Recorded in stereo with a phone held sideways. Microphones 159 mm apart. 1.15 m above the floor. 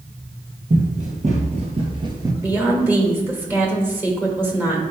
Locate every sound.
0.7 s running footsteps: 55° right (ahead or behind), 2 m; by 2.3 s 20° right (ahead or behind), 1.2 m
2.4 s a woman speaking: 15° right (ahead or behind), 1.8 m